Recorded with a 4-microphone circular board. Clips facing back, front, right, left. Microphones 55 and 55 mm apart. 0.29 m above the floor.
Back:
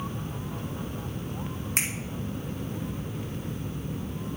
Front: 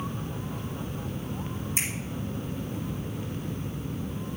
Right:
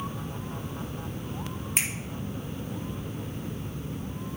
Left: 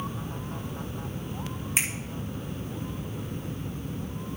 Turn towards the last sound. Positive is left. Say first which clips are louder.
# back 3 dB, left 1 dB
turn(degrees=175)